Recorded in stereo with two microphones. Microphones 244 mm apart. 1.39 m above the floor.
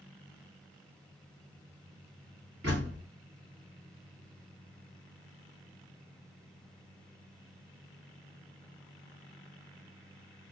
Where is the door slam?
80° right, 3 m.